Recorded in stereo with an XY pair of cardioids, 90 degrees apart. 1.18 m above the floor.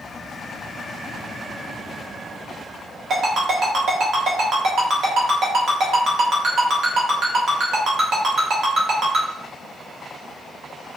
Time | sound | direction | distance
3.1 | a ringtone | 70° right | 1.1 m